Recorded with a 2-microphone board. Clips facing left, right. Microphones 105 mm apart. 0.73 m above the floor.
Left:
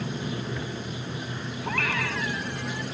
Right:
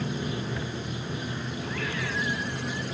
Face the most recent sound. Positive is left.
turn(degrees=85)